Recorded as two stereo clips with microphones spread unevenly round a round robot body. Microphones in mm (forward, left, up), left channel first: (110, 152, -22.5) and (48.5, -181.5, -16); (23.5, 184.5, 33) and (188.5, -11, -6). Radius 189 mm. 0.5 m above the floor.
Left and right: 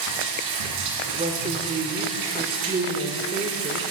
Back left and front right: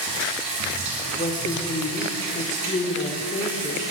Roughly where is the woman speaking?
Behind.